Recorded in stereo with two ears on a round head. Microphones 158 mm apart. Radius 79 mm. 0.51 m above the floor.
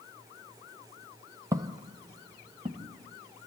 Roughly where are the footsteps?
Centre.